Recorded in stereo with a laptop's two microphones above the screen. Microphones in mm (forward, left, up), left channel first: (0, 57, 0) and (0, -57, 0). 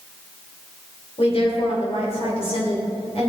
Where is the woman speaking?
60° left (ahead or behind), 3.5 m.